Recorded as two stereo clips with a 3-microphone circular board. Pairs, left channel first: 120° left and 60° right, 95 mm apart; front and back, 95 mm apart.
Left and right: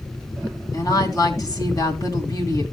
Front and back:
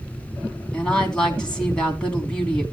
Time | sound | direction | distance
0.7 | a woman speaking | 80° left | 2.5 m